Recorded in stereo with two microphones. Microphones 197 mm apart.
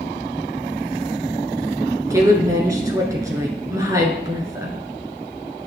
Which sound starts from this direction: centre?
A woman speaking, at 2.1 s.